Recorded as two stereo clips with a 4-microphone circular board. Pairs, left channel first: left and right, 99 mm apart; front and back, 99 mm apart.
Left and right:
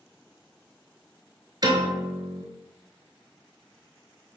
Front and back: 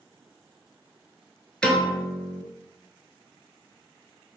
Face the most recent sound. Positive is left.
turn(degrees=-75)